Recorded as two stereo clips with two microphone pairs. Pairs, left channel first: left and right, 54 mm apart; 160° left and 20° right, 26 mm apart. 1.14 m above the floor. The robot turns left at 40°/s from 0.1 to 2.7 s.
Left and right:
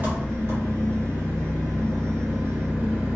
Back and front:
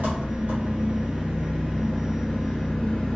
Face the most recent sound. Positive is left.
turn(degrees=-135)